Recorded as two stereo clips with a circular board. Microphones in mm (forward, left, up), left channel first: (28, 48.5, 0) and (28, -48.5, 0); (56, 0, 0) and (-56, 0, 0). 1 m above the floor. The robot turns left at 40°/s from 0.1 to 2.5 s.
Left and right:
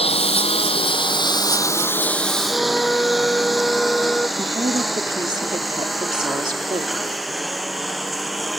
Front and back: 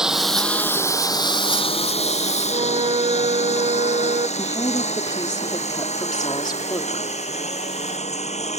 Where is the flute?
170° left.